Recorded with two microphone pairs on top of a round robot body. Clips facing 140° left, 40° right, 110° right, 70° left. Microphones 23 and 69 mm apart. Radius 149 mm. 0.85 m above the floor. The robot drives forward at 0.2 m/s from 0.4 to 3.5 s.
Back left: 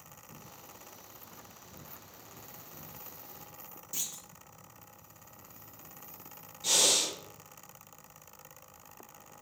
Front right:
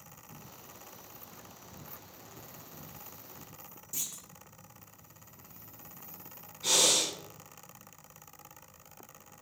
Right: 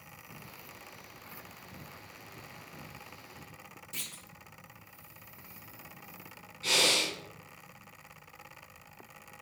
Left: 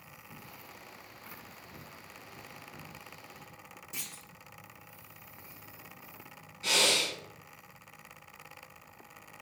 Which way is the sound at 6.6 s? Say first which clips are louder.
Front right 1 dB, even; 20° right.